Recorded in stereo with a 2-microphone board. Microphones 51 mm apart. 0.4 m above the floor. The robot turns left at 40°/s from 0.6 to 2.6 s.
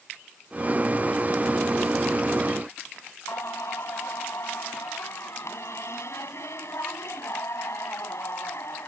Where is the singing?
75° left (ahead or behind).